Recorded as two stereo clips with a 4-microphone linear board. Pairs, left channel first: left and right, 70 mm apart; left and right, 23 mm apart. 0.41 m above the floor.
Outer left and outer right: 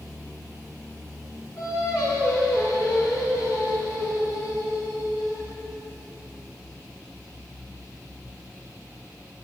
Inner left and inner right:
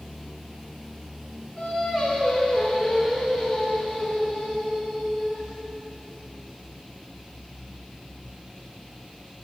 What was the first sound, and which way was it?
Singing, 45° left (ahead or behind).